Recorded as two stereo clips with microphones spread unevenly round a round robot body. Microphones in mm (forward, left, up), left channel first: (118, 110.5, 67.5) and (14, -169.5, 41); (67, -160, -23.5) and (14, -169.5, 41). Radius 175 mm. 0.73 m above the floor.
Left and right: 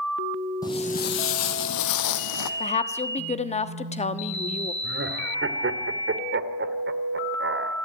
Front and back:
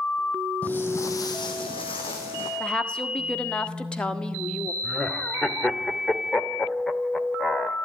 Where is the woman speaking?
Straight ahead, 1.5 m.